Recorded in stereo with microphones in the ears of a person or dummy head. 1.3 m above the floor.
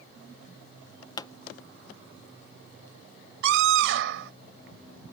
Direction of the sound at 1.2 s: 20° left (ahead or behind).